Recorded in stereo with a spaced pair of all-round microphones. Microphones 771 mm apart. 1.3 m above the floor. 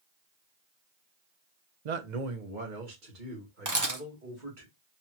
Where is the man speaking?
60° right (ahead or behind), 0.7 m; by 4.7 s 85° right, 3 m.